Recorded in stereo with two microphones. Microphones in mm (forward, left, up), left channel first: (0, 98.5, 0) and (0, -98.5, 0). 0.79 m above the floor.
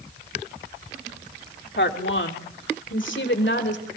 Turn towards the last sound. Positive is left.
turn(degrees=70)  # may be behind; listen again after turning